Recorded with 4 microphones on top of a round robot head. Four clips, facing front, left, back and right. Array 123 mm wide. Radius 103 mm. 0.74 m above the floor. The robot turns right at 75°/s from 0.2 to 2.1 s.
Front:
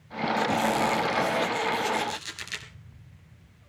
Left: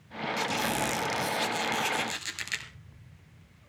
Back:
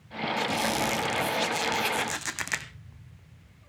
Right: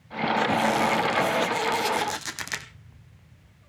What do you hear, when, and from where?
0.4 s a squeak: 85° left, 0.8 m; by 2.7 s 140° right, 0.8 m